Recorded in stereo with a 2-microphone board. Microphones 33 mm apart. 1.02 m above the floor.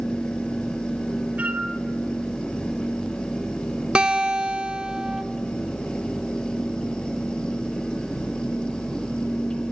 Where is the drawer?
I don't hear a drawer.